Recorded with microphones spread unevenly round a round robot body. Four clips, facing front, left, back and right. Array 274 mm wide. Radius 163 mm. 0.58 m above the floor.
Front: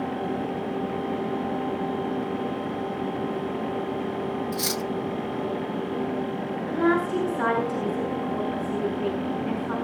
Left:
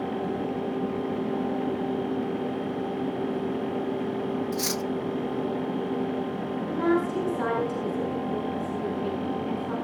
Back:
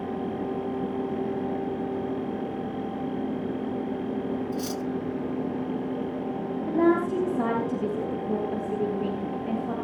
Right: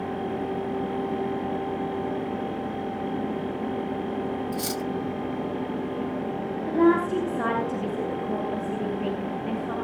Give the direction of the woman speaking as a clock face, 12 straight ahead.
5 o'clock.